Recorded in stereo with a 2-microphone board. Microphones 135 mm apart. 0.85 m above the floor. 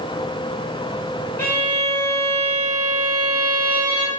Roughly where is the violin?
Centre.